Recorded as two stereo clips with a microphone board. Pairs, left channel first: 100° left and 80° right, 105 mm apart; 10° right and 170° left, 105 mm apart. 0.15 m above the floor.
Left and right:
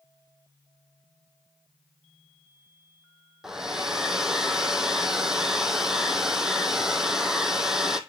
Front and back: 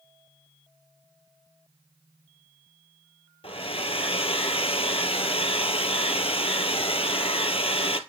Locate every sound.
3.4 s a hair dryer: 5° left, 0.9 m